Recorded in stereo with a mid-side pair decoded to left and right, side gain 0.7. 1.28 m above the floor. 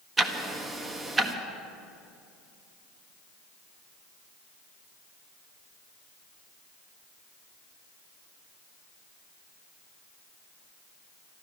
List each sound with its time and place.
0.2 s ticking: 20° right, 1.4 m